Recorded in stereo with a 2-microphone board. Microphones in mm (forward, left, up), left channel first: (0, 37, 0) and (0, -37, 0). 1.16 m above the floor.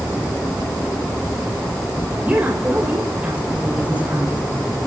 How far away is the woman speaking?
About 4.5 m.